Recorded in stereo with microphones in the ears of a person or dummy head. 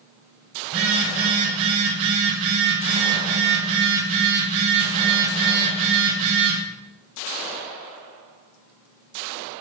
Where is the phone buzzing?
65° right (ahead or behind), 4.5 m.